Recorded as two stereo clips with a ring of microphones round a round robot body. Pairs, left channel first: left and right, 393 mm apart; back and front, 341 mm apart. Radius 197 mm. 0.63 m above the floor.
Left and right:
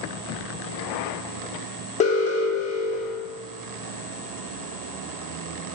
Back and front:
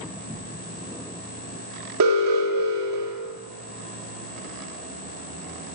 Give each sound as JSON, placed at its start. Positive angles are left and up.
{"t": 2.0, "sound": "an alarm", "azimuth_deg": 20, "distance_m": 1.4}